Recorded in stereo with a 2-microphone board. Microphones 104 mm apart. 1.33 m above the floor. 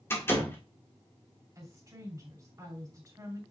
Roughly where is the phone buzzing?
I don't hear a phone buzzing.